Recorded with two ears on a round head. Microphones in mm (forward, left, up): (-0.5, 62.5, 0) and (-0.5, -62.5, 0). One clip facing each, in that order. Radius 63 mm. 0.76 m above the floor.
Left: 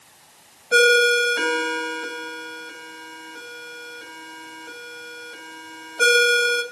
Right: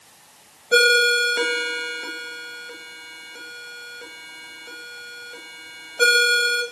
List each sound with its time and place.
0.7 s a ringtone: 10° right (ahead or behind), 5 m